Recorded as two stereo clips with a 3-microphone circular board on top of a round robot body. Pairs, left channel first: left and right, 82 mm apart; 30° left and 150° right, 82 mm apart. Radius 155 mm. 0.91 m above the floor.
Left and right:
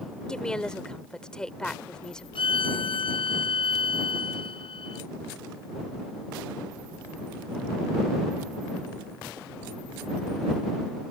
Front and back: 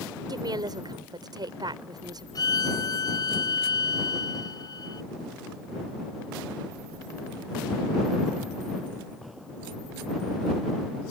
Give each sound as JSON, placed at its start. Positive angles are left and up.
{"t": 0.3, "sound": "a woman speaking", "azimuth_deg": 170}
{"t": 2.4, "sound": "a violin", "azimuth_deg": 75}